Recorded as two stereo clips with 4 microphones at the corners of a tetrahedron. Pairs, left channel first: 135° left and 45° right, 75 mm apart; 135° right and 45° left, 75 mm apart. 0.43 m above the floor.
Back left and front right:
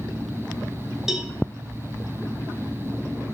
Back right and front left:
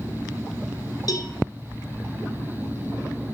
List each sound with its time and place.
1.1 s a cowbell: 125° right, 1.7 m